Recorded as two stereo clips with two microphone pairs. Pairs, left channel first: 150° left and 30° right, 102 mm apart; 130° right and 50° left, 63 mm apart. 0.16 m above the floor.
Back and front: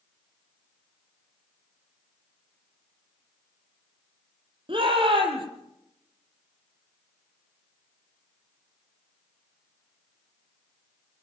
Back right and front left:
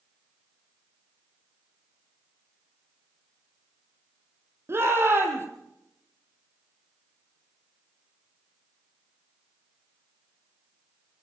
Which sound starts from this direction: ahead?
A shout, at 4.7 s.